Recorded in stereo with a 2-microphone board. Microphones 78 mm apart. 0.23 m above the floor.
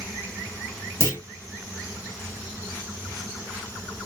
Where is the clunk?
30° left (ahead or behind), 2.0 m.